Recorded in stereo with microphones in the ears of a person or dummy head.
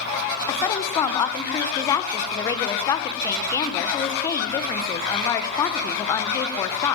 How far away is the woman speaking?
About 1.4 m.